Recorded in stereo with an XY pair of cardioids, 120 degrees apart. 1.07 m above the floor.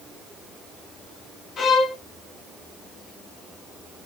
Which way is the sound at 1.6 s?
50° left.